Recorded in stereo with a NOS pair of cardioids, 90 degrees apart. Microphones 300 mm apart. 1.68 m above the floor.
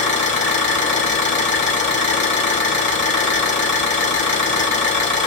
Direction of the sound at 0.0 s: 40° left.